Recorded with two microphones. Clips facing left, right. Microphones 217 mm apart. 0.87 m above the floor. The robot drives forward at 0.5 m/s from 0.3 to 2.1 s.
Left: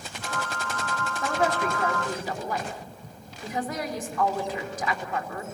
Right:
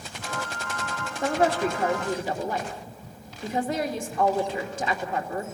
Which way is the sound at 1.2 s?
30° right (ahead or behind).